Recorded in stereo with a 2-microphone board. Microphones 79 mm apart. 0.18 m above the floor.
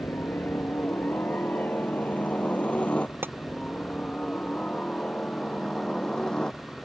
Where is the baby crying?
I don't hear a baby crying.